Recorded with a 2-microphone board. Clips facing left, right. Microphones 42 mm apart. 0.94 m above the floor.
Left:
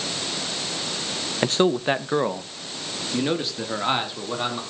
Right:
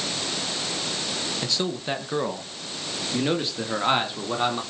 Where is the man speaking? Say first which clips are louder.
Left 11 dB; 45° left (ahead or behind), 0.8 m; by 4.6 s 10° right (ahead or behind), 2.5 m.